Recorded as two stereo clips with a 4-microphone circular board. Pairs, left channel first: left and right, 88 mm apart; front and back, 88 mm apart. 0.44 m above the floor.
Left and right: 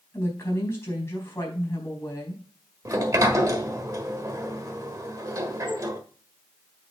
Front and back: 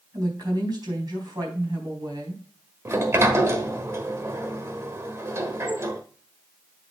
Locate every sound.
0.1 s a woman speaking: 145° left, 4 m
2.9 s a sliding door: 130° right, 1.3 m